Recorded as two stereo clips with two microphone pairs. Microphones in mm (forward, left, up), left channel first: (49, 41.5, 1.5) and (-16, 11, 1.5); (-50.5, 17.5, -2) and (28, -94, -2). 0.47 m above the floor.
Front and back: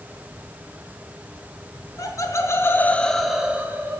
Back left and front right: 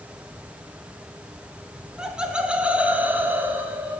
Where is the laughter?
30° left, 1.3 m; by 4.0 s 125° right, 0.9 m.